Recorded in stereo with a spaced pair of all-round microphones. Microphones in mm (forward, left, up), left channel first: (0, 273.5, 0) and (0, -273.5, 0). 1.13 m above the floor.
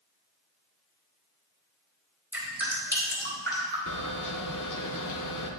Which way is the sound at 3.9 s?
35° left (ahead or behind).